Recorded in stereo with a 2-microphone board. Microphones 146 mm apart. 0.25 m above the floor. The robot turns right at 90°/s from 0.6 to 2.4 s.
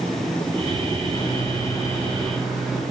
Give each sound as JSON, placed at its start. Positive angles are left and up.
{"t": 1.1, "sound": "a microwave", "azimuth_deg": 75, "distance_m": 1.2}